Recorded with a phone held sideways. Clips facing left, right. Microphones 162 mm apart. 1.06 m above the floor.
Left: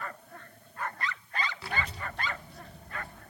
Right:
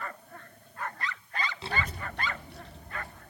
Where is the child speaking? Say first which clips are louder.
Right 1 dB; 20° right (ahead or behind), 0.5 m; by 3.2 s 75° right (ahead or behind), 2.5 m.